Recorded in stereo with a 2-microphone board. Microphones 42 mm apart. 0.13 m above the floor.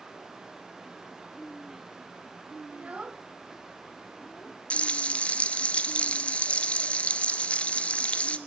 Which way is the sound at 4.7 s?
35° left (ahead or behind).